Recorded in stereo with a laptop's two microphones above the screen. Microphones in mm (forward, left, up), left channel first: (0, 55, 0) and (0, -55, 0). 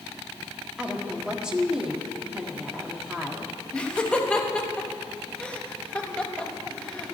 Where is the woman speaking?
10° right (ahead or behind), 1.8 m.